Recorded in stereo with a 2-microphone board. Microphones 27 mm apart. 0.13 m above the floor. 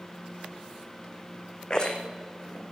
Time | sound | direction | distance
1.7 | a rattle | 30° left (ahead or behind) | 2.0 m